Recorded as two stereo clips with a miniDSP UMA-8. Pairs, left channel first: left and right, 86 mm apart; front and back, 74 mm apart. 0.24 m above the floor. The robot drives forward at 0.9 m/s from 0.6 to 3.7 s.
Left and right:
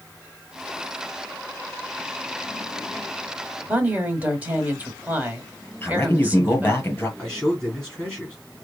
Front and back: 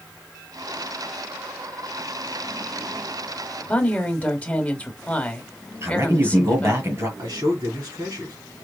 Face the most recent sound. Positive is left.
turn(degrees=170)